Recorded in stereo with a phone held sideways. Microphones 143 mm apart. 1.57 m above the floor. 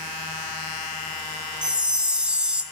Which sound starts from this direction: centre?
A chime, at 1.6 s.